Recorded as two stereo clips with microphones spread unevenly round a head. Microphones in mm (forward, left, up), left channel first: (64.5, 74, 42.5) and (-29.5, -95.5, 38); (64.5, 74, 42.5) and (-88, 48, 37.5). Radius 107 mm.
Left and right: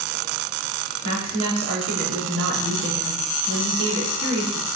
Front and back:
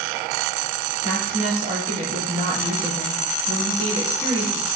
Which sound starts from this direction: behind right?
A woman speaking, at 1.0 s.